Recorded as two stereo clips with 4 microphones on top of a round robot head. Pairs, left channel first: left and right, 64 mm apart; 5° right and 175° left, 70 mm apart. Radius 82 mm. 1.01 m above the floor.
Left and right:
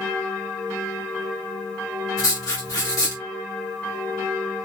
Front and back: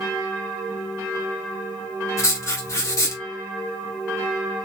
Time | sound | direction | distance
2.2 | writing | 45° left | 1.5 m